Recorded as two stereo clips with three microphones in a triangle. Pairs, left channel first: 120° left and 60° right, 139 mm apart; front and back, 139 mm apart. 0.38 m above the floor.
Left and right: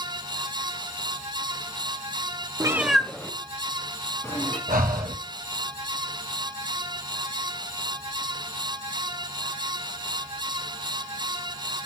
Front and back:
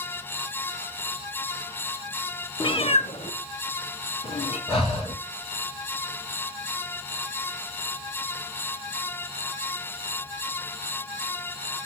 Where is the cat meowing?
15° right, 0.5 m; by 4.6 s 50° left, 2.5 m.